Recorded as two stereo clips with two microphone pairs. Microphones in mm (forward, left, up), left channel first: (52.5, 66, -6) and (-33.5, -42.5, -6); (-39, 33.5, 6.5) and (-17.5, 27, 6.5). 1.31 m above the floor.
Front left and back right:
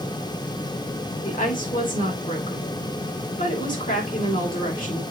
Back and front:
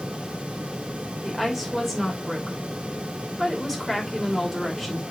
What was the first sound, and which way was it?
A woman speaking, 65° left.